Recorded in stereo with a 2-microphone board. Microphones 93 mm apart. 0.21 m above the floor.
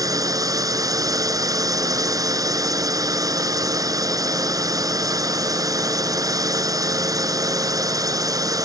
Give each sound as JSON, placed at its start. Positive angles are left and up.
{"t": 0.0, "sound": "a drone", "side_deg": -35}